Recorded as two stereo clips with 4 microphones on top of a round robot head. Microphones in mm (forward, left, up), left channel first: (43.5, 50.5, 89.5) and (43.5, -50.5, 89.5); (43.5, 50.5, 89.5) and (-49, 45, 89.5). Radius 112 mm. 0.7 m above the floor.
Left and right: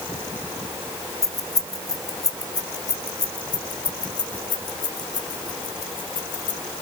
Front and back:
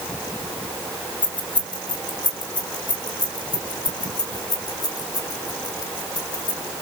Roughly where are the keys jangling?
Ahead left.